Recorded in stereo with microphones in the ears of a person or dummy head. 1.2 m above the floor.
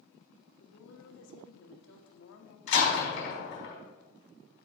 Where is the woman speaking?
70° left (ahead or behind), 1.8 m.